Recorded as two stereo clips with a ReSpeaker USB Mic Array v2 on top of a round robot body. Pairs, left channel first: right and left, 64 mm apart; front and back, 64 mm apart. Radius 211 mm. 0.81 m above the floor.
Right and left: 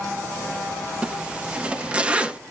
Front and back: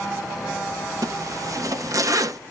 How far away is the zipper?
About 0.8 m.